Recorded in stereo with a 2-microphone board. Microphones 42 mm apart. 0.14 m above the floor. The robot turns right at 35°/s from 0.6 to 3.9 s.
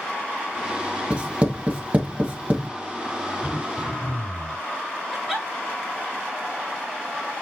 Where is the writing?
20° right (ahead or behind), 1.2 m; by 2.7 s 30° right (ahead or behind), 1.2 m.